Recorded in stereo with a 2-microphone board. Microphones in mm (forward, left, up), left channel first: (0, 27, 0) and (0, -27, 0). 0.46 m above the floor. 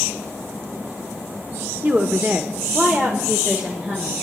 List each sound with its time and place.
1.8 s a woman speaking: 35° right (ahead or behind), 0.9 m; by 4.1 s 25° right (ahead or behind), 1.6 m